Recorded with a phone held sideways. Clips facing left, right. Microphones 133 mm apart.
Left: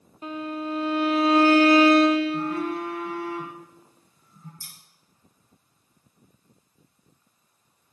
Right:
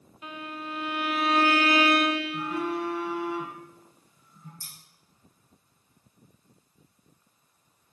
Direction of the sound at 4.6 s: 10° left (ahead or behind).